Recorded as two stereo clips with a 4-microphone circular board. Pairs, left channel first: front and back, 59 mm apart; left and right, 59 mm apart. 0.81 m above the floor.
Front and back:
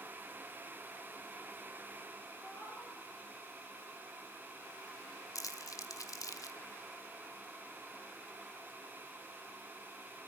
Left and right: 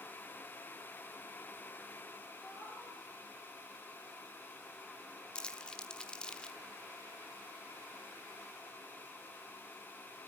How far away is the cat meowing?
About 10 m.